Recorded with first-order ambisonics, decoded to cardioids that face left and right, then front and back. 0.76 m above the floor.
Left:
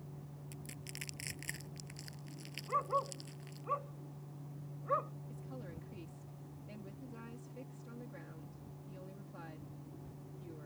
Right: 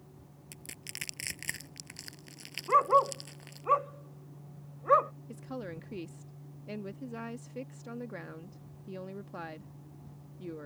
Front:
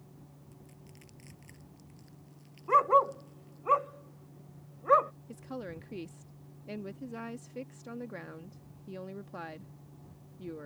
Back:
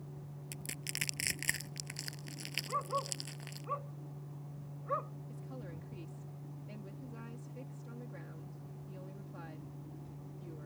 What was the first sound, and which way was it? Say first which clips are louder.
Crushing: right 6 dB, back 18 dB; 155° right.